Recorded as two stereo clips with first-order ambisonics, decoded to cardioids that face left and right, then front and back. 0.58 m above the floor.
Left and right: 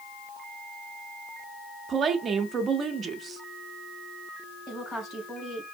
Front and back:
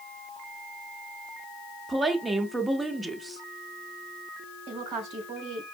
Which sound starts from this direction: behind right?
A woman speaking, at 1.9 s.